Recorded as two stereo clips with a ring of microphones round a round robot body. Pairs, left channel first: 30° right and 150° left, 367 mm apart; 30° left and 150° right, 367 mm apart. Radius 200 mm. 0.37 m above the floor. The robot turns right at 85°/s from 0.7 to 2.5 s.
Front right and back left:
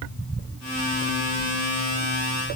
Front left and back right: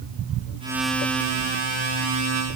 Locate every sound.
Only background noise.